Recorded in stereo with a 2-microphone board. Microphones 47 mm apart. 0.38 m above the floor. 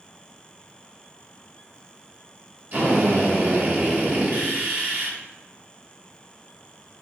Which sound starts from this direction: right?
A drill, at 2.7 s.